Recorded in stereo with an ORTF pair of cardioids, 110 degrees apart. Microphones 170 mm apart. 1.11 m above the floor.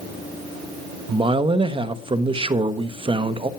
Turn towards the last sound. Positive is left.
turn(degrees=-30)